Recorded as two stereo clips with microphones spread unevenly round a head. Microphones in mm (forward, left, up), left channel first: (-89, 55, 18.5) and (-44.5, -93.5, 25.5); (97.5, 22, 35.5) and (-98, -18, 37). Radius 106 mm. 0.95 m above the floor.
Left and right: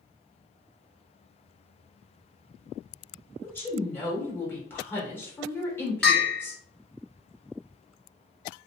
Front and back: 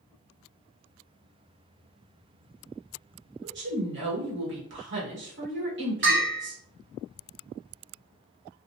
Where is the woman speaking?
Straight behind, 1.5 m.